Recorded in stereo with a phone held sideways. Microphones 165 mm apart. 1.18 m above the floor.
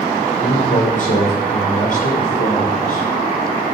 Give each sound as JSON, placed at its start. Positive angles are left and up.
{"t": 0.4, "sound": "a man speaking", "side_deg": 65, "distance_m": 4.5}